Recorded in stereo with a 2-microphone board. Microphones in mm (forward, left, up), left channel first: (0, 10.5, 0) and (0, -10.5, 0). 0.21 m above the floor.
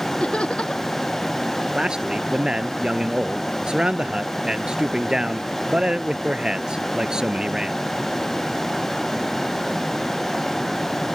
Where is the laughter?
45° left (ahead or behind).